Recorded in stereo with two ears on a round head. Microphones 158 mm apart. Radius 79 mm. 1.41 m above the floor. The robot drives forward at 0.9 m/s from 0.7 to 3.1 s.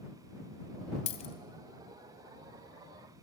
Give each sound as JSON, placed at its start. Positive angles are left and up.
{"t": 1.1, "sound": "a dropped coin", "side_deg": 40, "distance_m": 2.0}